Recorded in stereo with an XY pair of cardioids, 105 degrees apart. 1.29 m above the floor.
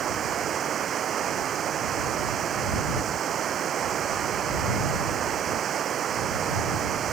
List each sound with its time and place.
0.0 s running water: 50° right